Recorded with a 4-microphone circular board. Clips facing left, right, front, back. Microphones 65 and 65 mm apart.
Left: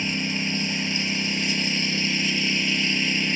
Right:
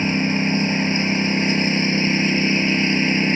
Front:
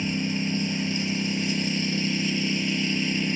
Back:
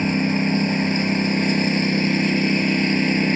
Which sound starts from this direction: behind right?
A lawn mower, at 0.0 s.